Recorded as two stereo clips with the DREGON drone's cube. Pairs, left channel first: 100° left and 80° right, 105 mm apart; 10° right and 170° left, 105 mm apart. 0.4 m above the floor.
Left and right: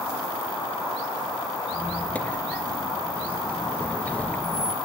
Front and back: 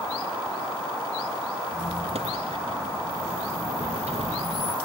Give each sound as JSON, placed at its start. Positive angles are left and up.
{"t": 1.7, "sound": "a squeak", "azimuth_deg": 175, "distance_m": 1.4}